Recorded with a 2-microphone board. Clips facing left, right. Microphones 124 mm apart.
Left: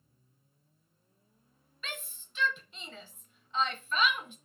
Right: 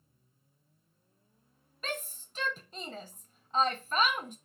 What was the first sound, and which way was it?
A shout, 45° right (ahead or behind).